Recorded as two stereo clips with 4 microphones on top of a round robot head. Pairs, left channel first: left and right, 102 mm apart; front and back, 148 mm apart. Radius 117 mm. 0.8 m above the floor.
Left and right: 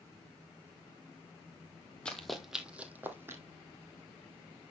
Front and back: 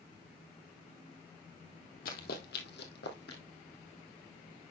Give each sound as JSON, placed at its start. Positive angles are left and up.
{"t": 2.0, "sound": "running footsteps", "azimuth_deg": 10, "distance_m": 1.3}